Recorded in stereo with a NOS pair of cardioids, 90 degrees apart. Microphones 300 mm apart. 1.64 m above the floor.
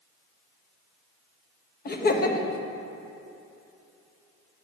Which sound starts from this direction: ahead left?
Laughter, at 1.9 s.